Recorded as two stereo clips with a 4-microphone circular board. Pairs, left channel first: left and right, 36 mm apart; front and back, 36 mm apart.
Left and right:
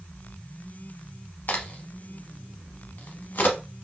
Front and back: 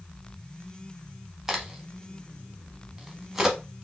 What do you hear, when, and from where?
1.5 s a crack: 100° left, 0.8 m